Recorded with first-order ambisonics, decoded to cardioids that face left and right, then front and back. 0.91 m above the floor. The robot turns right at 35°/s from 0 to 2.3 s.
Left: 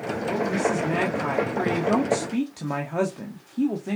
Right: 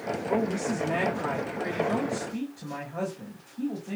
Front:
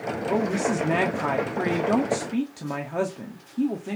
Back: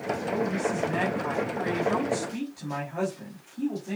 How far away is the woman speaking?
About 1.7 m.